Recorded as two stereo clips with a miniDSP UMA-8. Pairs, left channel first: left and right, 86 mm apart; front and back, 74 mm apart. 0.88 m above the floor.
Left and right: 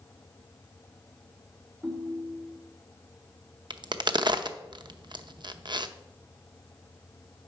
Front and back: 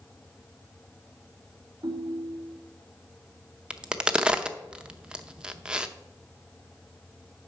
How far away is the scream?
No scream in this recording.